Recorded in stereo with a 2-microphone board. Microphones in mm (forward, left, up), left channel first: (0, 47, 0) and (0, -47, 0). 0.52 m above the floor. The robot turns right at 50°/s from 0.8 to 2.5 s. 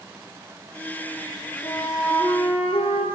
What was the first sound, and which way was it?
A flute, 45° left.